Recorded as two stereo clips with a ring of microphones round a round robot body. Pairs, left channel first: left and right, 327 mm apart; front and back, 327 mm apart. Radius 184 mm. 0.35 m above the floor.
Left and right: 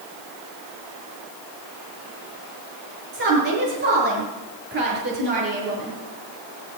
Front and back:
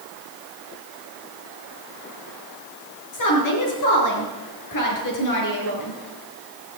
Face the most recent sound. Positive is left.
turn(degrees=-25)